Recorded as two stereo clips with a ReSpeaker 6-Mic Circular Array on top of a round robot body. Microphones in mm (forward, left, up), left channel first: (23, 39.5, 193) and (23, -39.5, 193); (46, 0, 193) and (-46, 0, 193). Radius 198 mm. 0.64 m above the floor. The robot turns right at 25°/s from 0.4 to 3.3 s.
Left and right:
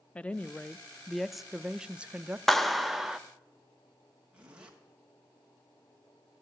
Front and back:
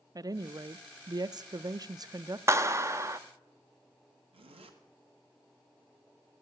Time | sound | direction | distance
0.1 | a woman speaking | 155° left | 0.6 m
2.5 | a clap | 175° left | 0.9 m
4.3 | a zipper | 170° right | 1.3 m